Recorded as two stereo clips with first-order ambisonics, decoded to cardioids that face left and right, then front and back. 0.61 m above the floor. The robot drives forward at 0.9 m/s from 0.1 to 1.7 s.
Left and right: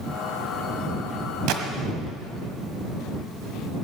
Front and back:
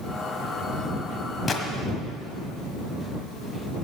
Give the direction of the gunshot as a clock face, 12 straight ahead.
2 o'clock.